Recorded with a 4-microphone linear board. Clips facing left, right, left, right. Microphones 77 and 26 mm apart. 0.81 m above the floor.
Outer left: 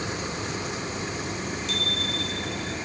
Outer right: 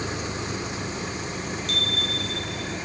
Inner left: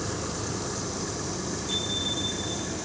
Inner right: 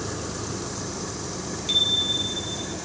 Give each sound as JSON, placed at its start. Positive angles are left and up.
{"t": 1.7, "sound": "a bicycle bell", "side_deg": -50, "distance_m": 6.0}